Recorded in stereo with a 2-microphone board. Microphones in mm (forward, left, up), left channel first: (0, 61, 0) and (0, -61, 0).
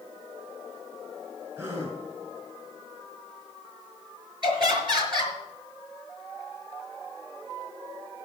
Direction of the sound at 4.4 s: 40° right (ahead or behind).